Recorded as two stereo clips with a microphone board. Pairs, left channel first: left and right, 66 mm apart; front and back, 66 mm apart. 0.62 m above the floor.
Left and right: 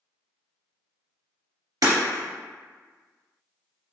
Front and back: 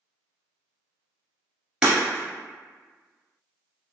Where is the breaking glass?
105° right, 1.8 m.